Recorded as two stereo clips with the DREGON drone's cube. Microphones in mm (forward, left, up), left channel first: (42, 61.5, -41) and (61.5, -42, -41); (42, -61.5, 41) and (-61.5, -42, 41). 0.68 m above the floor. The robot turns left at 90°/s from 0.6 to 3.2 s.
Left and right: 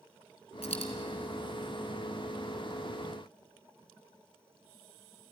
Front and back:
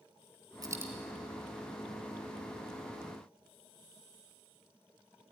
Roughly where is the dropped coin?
Behind left.